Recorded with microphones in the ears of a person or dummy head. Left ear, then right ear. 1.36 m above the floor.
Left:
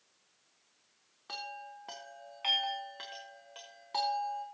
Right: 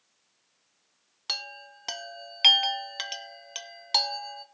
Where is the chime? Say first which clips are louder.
Right 8 dB; 70° right (ahead or behind), 0.8 m.